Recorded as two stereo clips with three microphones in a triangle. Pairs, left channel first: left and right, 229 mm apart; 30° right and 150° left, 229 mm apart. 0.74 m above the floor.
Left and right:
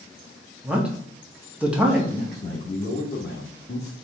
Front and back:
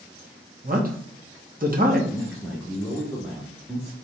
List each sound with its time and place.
0.6 s a man speaking: 175° right, 1.2 m
2.1 s a man speaking: 65° left, 1.0 m